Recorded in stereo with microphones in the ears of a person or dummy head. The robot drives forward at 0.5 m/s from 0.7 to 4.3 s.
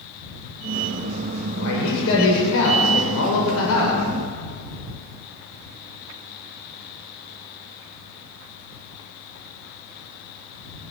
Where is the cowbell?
No cowbell in this recording.